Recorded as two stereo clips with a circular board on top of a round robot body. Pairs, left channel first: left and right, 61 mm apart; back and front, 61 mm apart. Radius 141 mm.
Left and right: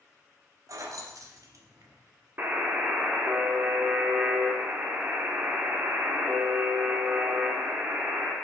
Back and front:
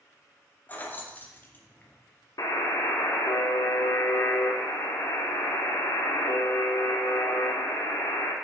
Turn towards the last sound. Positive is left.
turn(degrees=-150)